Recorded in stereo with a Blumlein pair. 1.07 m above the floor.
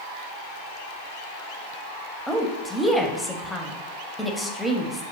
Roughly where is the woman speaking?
Ahead.